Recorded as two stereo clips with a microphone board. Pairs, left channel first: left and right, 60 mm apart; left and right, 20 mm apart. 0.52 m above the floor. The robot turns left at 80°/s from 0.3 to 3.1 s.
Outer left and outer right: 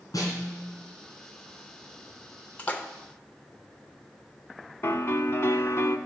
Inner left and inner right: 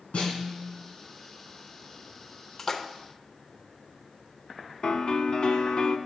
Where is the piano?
45° left (ahead or behind), 0.7 m.